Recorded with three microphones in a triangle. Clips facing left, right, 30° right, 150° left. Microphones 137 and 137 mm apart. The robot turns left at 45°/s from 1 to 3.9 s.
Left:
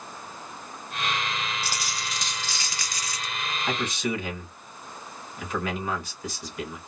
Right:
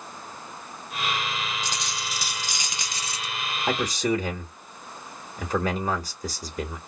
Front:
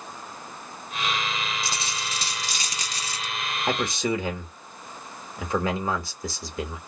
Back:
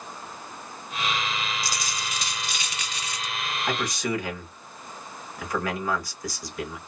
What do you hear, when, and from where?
1.6 s a dropped coin: 15° left, 0.6 m; by 3.3 s 60° right, 0.6 m
3.7 s a man speaking: 65° right, 1.3 m; by 6.8 s 75° right, 1.3 m